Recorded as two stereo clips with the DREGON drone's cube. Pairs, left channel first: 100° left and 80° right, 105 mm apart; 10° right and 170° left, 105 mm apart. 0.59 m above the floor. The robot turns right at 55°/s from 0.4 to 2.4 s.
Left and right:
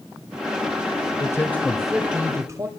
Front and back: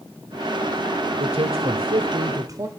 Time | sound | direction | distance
1.2 | a man speaking | 155° left | 1.7 m